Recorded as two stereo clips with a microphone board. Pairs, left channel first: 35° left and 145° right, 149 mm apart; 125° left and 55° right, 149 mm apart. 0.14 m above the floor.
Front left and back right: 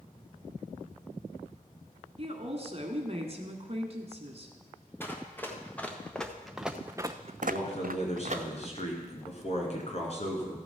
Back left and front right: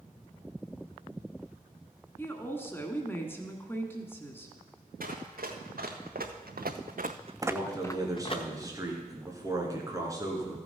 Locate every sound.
2.2 s a woman speaking: 165° right, 1.4 m
5.0 s running footsteps: 40° right, 2.5 m; by 8.4 s 175° left, 1.1 m
7.4 s a man speaking: 5° left, 2.5 m